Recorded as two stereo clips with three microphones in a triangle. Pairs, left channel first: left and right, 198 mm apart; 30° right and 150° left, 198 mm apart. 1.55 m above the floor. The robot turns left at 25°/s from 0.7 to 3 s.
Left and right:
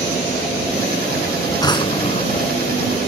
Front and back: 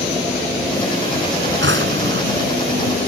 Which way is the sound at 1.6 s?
160° left.